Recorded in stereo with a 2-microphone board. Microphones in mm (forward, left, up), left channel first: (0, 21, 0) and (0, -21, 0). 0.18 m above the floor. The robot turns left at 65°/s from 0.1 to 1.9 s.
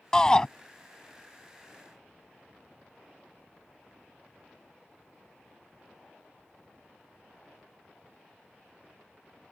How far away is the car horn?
No car horn in this recording.